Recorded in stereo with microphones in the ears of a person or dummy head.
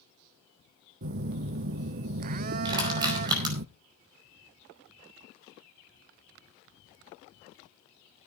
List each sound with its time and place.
1.0 s a phone buzzing: 45° right (ahead or behind), 0.6 m
2.6 s crushing: 25° right (ahead or behind), 5 m